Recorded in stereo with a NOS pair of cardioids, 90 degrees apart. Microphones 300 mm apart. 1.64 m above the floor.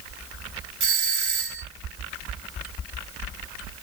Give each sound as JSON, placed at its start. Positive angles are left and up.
{"t": 0.8, "sound": "a doorbell", "azimuth_deg": -40, "distance_m": 1.3}